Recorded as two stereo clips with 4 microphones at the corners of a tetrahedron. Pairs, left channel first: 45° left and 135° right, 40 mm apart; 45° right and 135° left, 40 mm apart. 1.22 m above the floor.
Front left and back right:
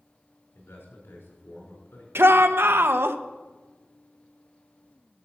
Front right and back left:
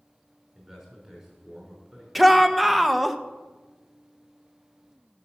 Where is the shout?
135° right, 0.8 m.